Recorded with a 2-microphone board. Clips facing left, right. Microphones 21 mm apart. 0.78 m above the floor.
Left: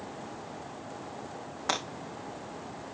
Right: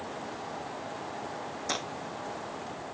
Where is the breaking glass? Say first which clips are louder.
Left 3 dB; 50° left (ahead or behind), 2.5 m.